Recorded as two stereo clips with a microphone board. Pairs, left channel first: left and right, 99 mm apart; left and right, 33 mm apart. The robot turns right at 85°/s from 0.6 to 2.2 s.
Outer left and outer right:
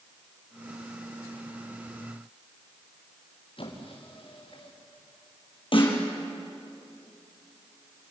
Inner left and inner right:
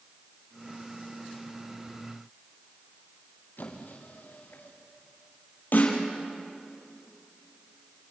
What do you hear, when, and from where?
3.6 s a squeak: 60° left (ahead or behind), 4.5 m
5.7 s a snare drum: 60° left (ahead or behind), 4.5 m